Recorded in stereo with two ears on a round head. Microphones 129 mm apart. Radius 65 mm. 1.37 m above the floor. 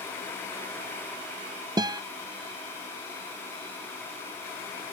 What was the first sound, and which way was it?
A guitar, 25° right (ahead or behind).